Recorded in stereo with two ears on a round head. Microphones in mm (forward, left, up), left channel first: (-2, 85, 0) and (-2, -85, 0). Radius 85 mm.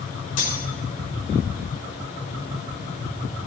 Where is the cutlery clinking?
50° left (ahead or behind), 4.5 m.